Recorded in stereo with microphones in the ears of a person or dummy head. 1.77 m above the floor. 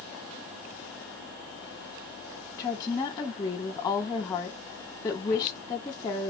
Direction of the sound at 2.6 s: 20° left (ahead or behind).